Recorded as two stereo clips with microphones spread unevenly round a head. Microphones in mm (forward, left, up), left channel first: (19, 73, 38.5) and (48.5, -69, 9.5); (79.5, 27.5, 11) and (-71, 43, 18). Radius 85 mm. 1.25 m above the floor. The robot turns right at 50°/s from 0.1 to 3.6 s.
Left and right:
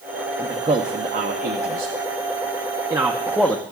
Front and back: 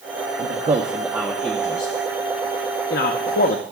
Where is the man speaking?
145° right, 0.8 m; by 3.6 s 15° left, 0.8 m.